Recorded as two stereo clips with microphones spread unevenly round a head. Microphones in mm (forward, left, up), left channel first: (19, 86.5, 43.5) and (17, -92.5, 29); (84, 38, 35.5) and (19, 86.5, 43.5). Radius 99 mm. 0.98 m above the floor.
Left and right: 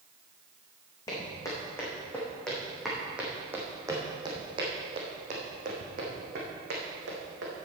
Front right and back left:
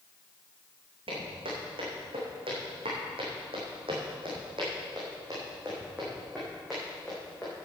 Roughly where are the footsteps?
Behind.